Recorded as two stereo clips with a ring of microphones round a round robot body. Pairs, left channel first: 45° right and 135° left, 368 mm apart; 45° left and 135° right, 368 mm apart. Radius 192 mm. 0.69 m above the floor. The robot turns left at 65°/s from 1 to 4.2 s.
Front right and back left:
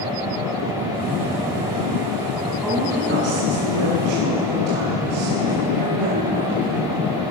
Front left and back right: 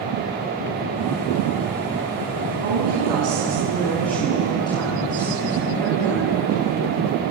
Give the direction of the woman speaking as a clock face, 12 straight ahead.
4 o'clock.